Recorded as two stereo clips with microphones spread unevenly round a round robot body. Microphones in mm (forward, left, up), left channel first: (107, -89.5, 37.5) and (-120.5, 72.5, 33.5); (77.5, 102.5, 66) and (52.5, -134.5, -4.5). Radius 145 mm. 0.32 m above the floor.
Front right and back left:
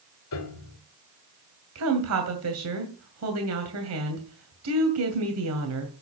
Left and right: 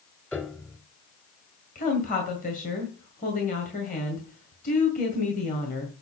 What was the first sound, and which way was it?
A piano, straight ahead.